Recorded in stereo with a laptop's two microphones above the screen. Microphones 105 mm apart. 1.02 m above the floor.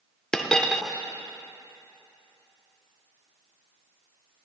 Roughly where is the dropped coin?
Centre.